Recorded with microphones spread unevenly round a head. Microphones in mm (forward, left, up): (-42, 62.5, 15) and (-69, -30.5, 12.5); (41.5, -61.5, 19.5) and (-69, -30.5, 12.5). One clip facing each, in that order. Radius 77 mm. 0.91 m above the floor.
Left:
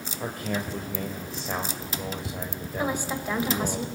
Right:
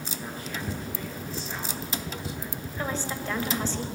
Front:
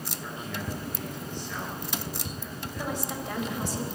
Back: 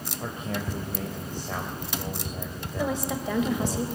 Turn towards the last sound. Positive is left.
turn(degrees=150)